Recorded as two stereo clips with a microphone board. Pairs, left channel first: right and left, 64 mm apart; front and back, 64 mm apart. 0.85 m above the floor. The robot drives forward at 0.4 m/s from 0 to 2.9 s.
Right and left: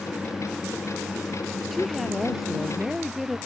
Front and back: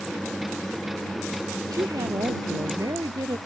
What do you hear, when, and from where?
1.7 s a woman speaking: straight behind